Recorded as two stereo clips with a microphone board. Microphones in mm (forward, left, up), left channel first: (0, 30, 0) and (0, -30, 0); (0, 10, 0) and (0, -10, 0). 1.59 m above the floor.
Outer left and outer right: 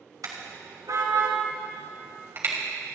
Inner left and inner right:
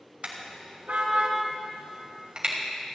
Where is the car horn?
70° right (ahead or behind), 3.5 m; by 2.5 s 35° right (ahead or behind), 3.5 m.